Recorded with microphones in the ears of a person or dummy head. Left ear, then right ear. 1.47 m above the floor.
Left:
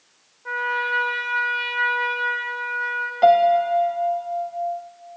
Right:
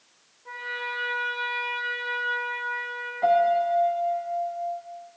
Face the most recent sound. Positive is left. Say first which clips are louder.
# left 5 dB
turn(degrees=85)